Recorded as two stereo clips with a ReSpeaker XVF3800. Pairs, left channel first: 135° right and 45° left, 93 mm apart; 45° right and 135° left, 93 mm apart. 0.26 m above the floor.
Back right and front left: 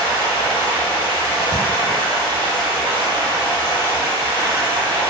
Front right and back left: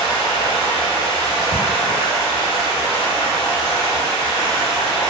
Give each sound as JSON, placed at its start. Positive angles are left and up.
{"t": 0.0, "sound": "running water", "azimuth_deg": 95, "distance_m": 1.2}